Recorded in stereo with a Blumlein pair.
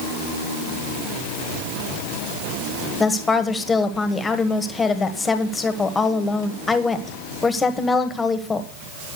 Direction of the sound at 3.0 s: 10° left.